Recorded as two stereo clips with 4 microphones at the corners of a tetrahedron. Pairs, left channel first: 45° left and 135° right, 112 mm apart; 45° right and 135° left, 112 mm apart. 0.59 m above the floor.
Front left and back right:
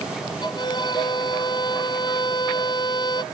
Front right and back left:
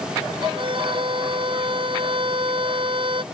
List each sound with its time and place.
0.4 s a violin: 95° left